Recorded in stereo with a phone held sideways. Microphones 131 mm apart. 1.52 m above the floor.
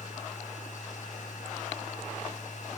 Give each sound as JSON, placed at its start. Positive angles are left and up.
{"t": 0.0, "sound": "a machine running", "side_deg": 65, "distance_m": 1.3}